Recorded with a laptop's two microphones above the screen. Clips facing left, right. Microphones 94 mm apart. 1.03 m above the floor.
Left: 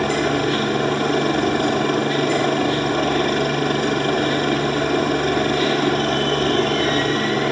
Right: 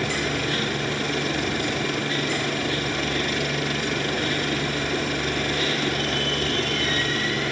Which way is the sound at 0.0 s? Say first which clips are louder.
Left 7 dB; 45° left (ahead or behind).